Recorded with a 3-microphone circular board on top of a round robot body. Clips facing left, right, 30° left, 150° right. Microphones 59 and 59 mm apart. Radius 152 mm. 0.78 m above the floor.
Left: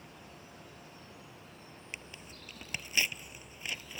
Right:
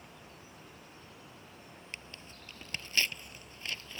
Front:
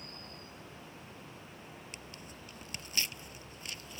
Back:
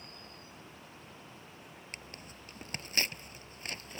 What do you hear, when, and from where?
1.9 s tearing paper: 165° left